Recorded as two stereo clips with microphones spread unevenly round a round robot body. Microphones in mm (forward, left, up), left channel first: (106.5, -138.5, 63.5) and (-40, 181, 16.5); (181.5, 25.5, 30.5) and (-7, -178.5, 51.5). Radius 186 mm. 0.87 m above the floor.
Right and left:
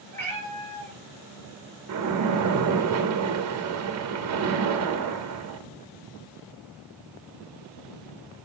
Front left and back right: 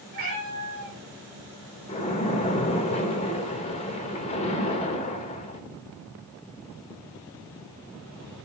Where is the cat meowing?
145° right, 3.5 m.